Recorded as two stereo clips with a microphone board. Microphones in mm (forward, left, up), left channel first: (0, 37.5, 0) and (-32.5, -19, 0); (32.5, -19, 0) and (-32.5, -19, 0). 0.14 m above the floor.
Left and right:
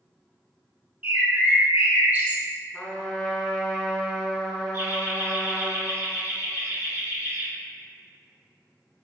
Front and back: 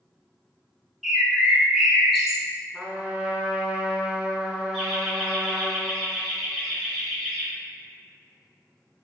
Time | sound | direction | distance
1.0 | a bird | 100° right | 0.7 m
2.7 | a trumpet | 125° left | 0.5 m
4.7 | laughter | 65° right | 1.9 m